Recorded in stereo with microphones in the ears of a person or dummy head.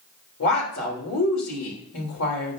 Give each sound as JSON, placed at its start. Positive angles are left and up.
{"t": 0.4, "sound": "a woman speaking", "side_deg": 75, "distance_m": 3.0}